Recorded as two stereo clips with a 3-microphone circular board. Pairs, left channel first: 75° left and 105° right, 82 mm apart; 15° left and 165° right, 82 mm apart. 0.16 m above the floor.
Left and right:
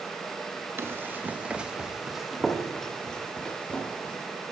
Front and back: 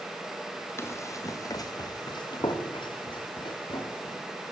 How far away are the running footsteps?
About 3 m.